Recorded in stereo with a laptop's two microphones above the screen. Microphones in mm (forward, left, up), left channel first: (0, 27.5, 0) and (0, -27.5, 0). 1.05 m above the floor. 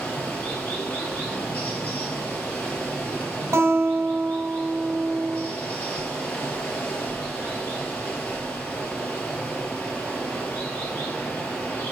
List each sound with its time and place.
0.0 s running water: 30° left (ahead or behind), 3.5 m
3.5 s a guitar: 55° right (ahead or behind), 3 m